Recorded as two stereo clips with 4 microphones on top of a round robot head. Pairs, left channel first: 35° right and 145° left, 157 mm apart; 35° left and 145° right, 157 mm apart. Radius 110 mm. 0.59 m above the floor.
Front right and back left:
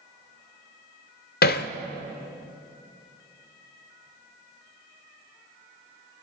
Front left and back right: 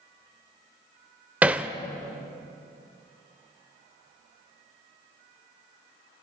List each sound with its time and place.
1.4 s hammering: 60° right, 0.7 m